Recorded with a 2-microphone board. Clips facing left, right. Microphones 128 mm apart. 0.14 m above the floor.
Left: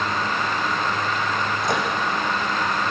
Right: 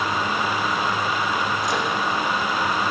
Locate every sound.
1.6 s a microwave: 60° left (ahead or behind), 5.5 m